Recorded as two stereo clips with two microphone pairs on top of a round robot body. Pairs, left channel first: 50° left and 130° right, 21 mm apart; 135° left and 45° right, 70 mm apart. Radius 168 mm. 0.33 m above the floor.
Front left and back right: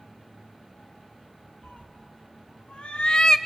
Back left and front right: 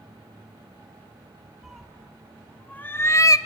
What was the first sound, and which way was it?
A cat meowing, 40° left.